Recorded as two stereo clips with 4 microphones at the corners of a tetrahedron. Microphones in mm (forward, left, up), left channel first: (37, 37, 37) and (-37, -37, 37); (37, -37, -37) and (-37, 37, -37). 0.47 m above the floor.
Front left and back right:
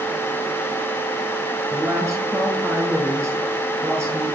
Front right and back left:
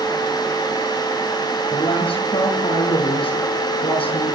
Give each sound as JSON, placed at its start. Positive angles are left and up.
{"t": 1.7, "sound": "a woman speaking", "azimuth_deg": -70, "distance_m": 8.0}